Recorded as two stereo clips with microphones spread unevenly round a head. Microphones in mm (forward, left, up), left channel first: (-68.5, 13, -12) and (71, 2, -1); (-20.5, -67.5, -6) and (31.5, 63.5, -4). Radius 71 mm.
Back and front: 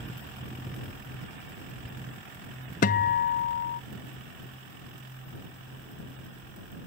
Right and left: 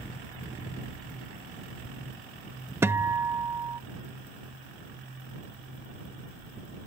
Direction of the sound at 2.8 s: 145° left.